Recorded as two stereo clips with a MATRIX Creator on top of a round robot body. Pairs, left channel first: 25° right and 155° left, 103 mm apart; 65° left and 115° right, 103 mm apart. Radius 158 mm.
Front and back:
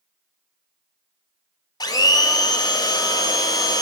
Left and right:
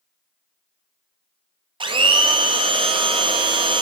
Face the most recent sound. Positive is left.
turn(degrees=-75)